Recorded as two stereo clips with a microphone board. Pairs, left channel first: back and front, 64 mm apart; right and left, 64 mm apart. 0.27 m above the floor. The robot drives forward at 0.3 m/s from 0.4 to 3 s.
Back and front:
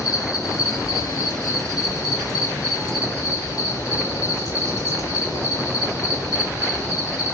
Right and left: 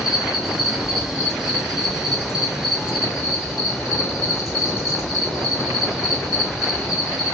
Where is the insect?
175° left, 1.4 m.